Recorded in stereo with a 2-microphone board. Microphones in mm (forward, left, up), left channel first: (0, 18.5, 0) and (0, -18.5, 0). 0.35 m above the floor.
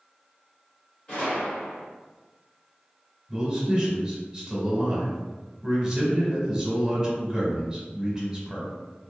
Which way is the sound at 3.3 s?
15° right (ahead or behind).